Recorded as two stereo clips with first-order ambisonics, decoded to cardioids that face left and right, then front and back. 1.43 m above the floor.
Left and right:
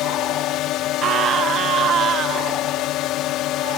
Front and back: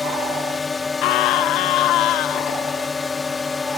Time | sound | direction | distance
0.0 | a drone | 70° left | ?
1.0 | a scream | 30° right | ?